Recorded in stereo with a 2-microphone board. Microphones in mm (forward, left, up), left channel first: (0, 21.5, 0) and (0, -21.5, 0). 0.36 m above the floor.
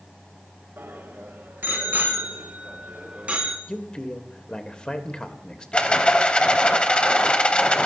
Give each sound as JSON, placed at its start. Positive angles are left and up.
{"t": 0.8, "sound": "a bicycle bell", "side_deg": -70, "distance_m": 3.5}
{"t": 3.7, "sound": "a man speaking", "side_deg": 20, "distance_m": 1.4}
{"t": 5.7, "sound": "a rattle", "side_deg": 25, "distance_m": 1.2}